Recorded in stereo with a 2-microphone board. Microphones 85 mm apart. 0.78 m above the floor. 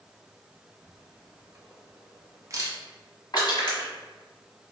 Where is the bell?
I don't hear a bell.